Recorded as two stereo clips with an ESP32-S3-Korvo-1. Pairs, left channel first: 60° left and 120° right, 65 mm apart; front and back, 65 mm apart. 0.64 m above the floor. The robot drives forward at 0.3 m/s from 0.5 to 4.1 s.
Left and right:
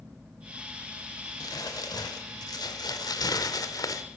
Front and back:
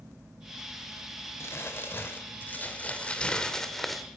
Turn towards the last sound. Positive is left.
turn(degrees=90)